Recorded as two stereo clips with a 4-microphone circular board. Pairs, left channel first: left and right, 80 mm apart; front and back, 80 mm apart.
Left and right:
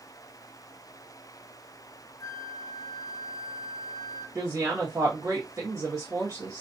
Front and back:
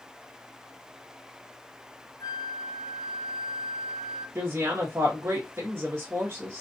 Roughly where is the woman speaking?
Behind right.